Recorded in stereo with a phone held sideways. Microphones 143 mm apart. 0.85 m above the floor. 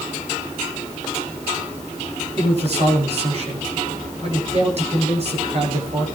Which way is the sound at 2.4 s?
50° right (ahead or behind).